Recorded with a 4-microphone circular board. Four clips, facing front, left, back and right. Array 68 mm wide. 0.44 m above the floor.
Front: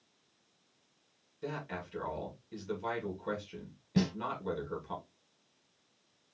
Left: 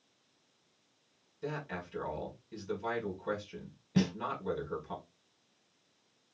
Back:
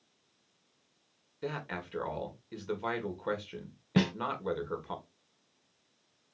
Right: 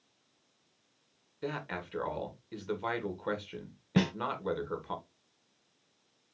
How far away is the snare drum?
About 0.5 m.